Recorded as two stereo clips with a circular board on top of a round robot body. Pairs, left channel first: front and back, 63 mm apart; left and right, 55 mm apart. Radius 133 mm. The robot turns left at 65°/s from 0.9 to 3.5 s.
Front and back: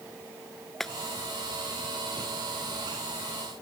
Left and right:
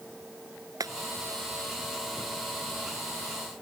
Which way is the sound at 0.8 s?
85° right.